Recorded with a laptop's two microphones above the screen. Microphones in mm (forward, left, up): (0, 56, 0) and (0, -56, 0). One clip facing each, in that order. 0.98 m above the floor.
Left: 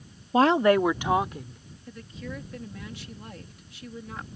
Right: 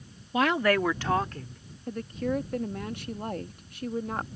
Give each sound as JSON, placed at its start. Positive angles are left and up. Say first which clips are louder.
{"t": 0.3, "sound": "a woman speaking", "louder": "left 5 dB", "side_deg": 35}
{"t": 1.9, "sound": "a woman speaking", "louder": "right 9 dB", "side_deg": -55}